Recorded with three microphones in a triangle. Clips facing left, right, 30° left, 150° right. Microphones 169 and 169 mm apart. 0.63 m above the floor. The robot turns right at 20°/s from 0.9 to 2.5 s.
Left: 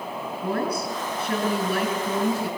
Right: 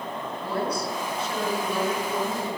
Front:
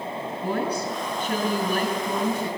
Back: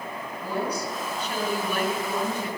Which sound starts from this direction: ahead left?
A woman speaking, at 0.4 s.